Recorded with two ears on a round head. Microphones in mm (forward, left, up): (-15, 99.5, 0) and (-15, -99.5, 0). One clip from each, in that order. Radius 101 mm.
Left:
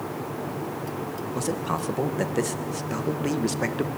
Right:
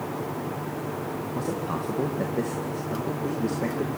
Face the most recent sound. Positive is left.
turn(degrees=60)  # may be behind; listen again after turning